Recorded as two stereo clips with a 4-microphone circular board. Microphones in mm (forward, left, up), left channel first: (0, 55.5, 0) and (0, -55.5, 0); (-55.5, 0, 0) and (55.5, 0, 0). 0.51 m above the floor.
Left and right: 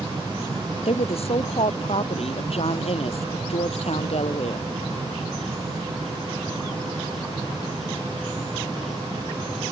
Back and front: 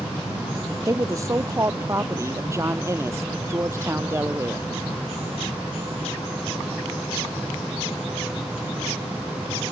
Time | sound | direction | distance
0.8 | a woman speaking | 60° left | ?